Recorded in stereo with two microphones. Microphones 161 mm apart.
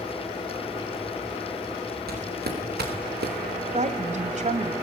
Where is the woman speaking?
50° right (ahead or behind), 1.8 m.